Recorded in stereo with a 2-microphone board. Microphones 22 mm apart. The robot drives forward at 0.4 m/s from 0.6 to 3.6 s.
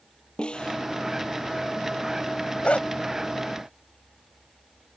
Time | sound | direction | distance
0.4 | a snare drum | 45° left (ahead or behind) | ?
2.6 | a dog barking | 70° left (ahead or behind) | ?